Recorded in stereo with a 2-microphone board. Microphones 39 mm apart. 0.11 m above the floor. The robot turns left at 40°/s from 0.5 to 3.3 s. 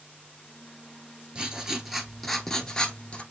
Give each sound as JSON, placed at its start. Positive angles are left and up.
{"t": 1.4, "sound": "writing", "azimuth_deg": -150, "distance_m": 1.0}